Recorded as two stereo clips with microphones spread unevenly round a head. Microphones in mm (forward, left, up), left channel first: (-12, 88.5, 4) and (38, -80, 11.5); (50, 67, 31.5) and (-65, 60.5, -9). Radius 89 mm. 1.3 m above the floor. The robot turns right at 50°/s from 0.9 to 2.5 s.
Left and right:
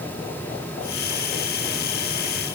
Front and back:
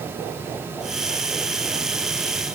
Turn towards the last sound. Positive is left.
No sound to turn to.